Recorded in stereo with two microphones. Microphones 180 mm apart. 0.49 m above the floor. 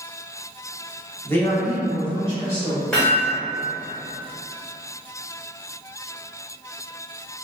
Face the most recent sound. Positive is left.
turn(degrees=5)  # may be behind; listen again after turning